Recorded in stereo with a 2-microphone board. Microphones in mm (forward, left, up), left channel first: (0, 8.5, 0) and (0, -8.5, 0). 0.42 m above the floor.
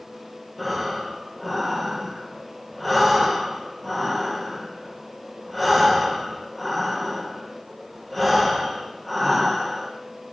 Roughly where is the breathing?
Centre.